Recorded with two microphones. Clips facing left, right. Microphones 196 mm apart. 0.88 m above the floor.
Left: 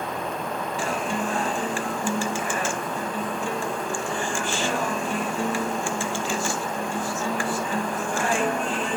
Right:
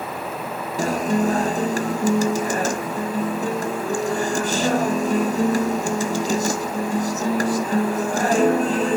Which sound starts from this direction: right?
A guitar, at 0.8 s.